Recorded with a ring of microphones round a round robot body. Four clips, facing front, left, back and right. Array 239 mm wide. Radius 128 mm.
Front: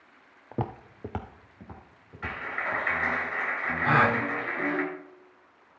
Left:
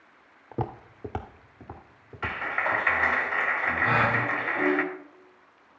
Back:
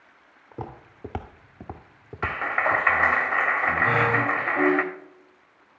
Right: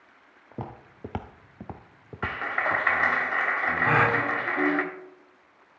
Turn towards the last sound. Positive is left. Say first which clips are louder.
# right 2 dB, front 2 dB
turn(degrees=-45)